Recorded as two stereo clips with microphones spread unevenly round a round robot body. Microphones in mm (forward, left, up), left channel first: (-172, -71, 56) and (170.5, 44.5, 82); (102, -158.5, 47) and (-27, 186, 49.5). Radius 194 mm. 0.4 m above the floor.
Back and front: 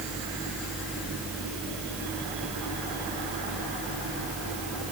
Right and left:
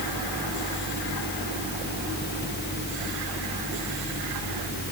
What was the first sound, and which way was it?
Only background noise.